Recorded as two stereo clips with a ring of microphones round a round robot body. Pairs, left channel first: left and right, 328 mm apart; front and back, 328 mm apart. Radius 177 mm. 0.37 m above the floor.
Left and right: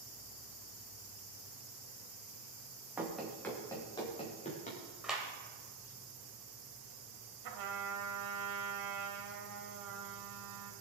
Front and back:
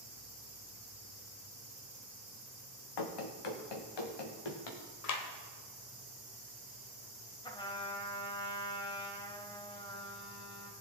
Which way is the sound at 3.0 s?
5° right.